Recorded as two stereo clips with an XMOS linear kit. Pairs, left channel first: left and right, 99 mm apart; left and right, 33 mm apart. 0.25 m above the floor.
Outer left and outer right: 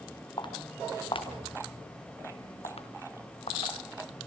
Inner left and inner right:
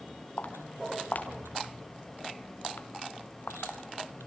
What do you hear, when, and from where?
0.4 s footsteps: 50° left (ahead or behind), 4 m; by 4.3 s 85° left, 2.5 m